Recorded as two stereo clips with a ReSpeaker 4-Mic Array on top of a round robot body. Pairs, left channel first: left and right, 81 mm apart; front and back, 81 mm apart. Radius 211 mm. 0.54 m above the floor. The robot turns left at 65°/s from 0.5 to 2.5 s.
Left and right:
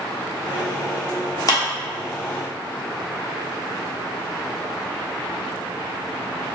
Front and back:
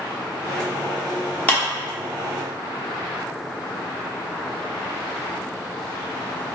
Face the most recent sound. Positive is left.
turn(degrees=0)